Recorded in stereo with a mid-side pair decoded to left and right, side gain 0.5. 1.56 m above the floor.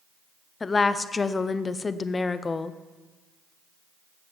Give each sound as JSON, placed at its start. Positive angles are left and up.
{"t": 0.6, "sound": "a woman speaking", "azimuth_deg": 30, "distance_m": 0.7}